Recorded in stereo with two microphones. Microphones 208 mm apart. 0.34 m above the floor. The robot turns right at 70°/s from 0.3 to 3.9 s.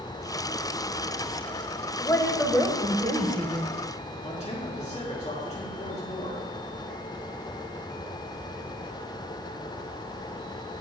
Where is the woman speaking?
145° left, 1.1 m; by 3.8 s 90° right, 1.1 m.